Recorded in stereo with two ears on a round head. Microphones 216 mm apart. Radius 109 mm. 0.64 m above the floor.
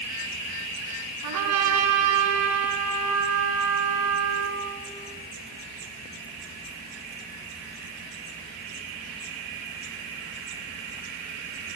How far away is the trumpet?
About 1.6 m.